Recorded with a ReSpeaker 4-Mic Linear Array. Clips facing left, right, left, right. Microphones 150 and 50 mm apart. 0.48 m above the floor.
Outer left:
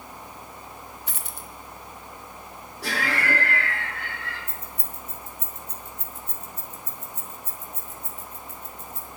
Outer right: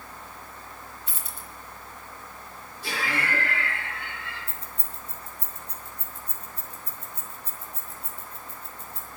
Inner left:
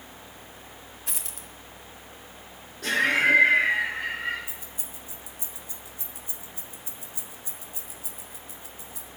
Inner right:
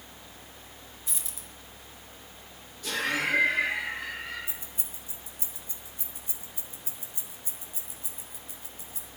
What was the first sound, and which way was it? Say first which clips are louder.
A dropped coin: outer left 2 dB, inner left 3 dB; 70° left (ahead or behind).